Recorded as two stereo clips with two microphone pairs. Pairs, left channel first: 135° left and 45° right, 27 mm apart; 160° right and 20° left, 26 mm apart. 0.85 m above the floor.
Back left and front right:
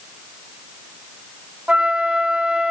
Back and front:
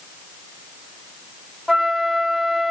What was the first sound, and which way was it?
A flute, 75° right.